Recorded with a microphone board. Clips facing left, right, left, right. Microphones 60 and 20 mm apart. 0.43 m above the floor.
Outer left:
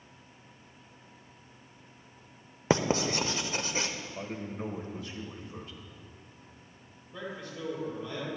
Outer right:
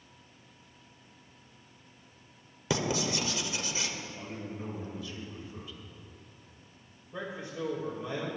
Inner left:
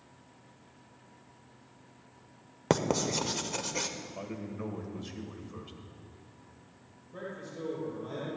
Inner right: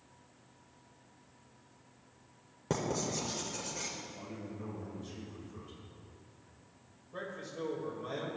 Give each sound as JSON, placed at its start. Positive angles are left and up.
{"t": 2.7, "sound": "writing", "side_deg": 45, "distance_m": 0.7}
{"t": 4.2, "sound": "a man speaking", "side_deg": 55, "distance_m": 1.7}
{"t": 7.1, "sound": "a man speaking", "side_deg": -25, "distance_m": 2.0}